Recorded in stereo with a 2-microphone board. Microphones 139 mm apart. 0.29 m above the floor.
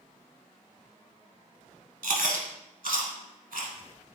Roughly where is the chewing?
Right.